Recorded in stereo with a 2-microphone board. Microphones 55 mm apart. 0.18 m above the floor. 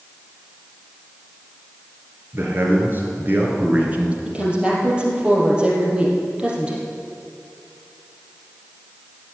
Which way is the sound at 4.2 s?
20° right (ahead or behind).